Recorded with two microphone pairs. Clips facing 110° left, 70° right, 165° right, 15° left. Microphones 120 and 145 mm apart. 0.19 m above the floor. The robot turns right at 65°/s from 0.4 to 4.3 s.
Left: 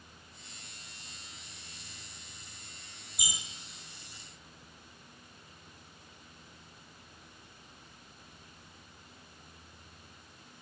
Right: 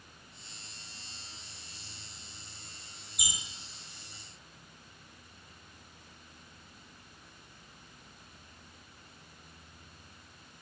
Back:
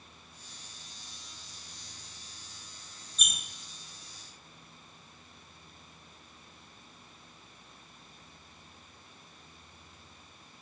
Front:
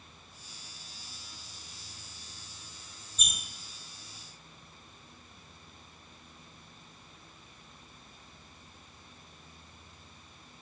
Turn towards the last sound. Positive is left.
turn(degrees=120)